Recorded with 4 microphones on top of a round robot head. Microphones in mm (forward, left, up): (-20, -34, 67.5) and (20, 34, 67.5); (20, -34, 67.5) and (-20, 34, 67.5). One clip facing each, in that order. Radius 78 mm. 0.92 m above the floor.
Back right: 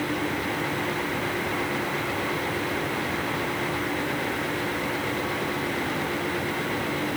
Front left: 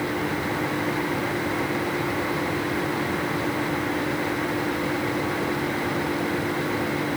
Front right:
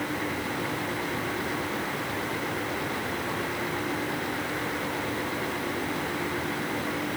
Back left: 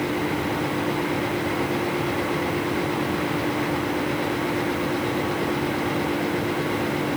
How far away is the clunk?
No clunk in this recording.